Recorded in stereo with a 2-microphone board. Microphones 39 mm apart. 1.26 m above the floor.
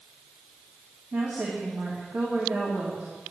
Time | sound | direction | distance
1.1 | a woman speaking | 40° right (ahead or behind) | 2.5 m